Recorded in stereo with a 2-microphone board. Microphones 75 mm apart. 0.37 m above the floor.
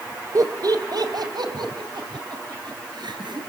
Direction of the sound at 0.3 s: 50° right (ahead or behind).